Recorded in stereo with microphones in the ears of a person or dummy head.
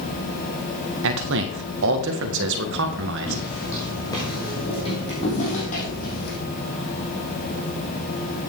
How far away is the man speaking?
About 1.7 m.